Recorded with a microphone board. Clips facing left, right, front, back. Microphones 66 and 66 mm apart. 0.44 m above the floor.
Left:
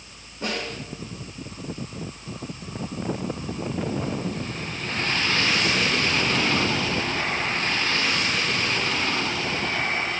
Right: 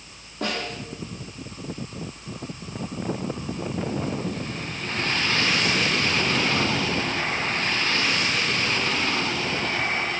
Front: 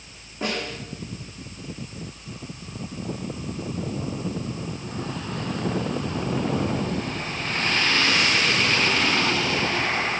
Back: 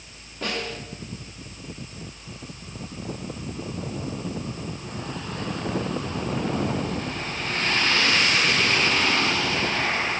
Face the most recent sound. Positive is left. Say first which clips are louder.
# right 1 dB, front 1 dB
turn(degrees=-70)